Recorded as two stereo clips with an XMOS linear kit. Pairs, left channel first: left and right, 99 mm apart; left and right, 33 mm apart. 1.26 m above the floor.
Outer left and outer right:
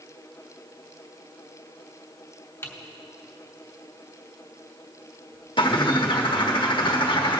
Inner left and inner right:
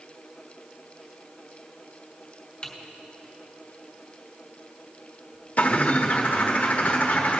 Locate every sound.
2.6 s typing on a keyboard: 25° left (ahead or behind), 1.3 m
5.6 s a bird: 50° left (ahead or behind), 1.1 m